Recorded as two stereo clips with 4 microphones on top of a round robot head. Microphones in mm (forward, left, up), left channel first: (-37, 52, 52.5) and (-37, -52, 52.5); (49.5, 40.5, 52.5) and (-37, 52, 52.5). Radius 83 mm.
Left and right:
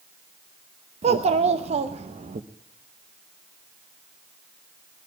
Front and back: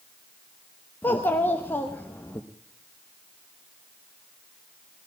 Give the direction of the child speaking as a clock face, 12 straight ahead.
3 o'clock.